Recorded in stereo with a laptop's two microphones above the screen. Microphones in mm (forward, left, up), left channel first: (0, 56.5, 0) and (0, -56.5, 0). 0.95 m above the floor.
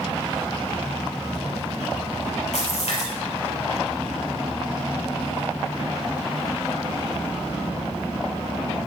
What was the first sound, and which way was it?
A splash, 85° left.